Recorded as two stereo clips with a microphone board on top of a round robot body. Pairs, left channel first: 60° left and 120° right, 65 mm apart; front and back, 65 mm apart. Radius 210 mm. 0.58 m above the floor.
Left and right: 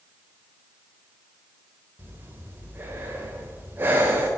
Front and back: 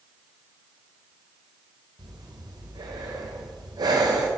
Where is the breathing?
Straight behind, 1.0 m.